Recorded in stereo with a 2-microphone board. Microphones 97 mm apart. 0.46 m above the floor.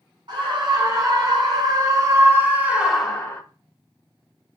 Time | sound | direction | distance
0.3 | a scream | 50° right (ahead or behind) | 4 m